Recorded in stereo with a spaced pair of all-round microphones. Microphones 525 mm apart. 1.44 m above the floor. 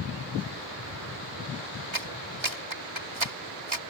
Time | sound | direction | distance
1.9 | a clap | 60° right (ahead or behind) | ?